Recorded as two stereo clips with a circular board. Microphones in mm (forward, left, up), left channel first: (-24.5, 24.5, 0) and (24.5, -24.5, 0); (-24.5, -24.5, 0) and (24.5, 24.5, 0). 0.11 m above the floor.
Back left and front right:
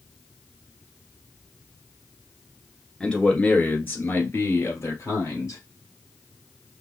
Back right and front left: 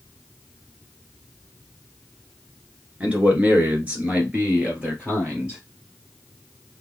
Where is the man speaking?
80° left, 1.4 m; by 5.6 s 115° left, 2 m.